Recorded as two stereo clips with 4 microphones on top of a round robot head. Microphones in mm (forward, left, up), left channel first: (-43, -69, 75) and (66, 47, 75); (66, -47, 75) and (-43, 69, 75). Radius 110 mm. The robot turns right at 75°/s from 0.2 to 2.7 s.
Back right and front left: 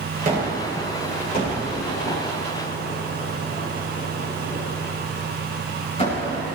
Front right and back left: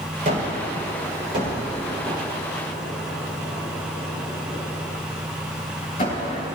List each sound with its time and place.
0.2 s a gunshot: 90° left, 7 m; by 6.5 s 85° right, 7 m